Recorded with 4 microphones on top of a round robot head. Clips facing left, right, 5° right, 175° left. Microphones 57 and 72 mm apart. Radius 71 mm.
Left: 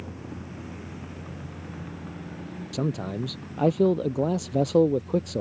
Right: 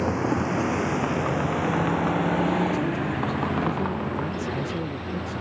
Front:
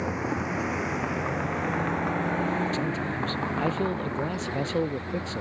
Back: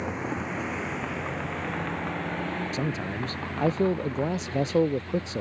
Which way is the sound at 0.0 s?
90° right.